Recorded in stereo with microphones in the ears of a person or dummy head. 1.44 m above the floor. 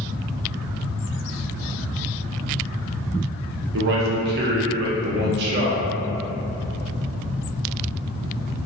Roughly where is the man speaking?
Right.